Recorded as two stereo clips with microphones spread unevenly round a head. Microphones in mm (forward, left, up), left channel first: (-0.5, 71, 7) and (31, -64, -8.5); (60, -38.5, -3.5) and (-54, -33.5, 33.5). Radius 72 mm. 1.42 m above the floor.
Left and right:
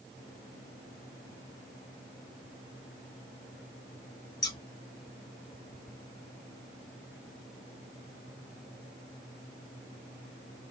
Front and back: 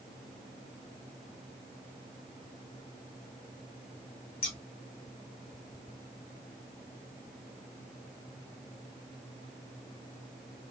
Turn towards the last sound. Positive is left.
turn(degrees=55)